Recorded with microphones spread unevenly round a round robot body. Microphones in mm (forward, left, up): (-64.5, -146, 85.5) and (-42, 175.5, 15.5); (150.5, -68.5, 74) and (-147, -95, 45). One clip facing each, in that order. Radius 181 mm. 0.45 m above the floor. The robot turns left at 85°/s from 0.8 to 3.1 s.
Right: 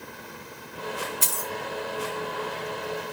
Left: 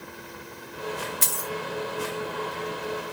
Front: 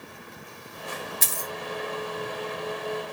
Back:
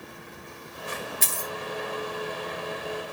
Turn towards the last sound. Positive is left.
turn(degrees=-145)